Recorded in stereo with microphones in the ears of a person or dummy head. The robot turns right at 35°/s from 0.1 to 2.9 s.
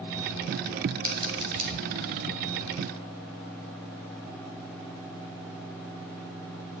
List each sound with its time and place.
1.0 s scissors: 20° right (ahead or behind), 1.3 m; by 1.7 s 45° right (ahead or behind), 1.3 m